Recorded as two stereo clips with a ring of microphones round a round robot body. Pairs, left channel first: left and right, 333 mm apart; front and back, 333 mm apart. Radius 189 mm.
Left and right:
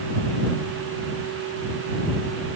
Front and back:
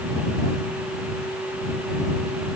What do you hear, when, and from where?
Only background noise.